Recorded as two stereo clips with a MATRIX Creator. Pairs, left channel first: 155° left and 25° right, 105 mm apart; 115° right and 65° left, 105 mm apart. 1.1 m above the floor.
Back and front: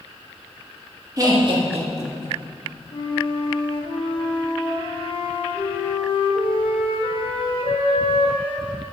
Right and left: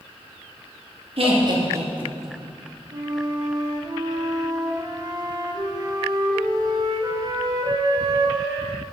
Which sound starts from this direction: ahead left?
Laughter, at 1.2 s.